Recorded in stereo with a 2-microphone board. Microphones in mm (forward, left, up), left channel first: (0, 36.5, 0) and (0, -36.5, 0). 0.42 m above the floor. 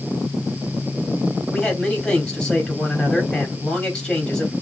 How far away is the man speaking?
About 2.5 m.